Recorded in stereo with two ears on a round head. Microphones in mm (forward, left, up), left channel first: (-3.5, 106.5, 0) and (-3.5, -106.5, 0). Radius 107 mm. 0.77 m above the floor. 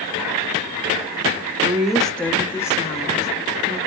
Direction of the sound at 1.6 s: 10° right (ahead or behind).